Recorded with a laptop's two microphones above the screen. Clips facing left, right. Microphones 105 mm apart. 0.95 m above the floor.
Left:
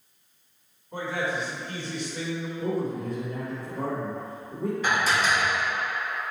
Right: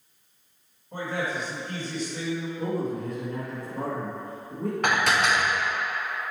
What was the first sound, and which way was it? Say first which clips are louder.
A man speaking: left 1 dB; 40° right (ahead or behind).